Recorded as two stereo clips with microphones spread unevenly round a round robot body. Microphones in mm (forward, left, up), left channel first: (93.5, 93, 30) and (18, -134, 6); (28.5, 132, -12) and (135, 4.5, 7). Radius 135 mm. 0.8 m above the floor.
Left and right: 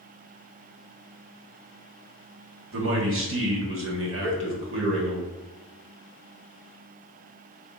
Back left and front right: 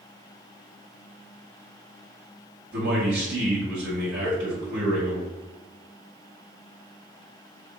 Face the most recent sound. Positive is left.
turn(degrees=-150)